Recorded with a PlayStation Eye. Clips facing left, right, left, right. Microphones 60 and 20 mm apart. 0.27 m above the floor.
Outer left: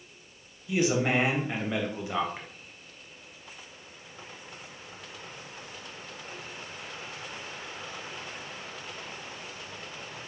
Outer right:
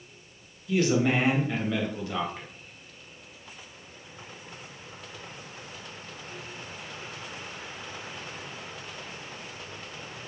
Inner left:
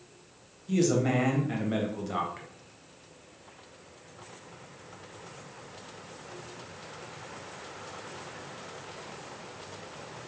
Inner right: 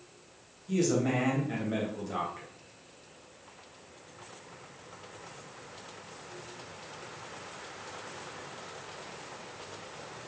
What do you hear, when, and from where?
0.7 s a man speaking: 20° left (ahead or behind), 0.9 m